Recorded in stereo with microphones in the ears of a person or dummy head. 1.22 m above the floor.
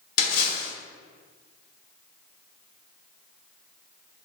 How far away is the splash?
About 3.5 m.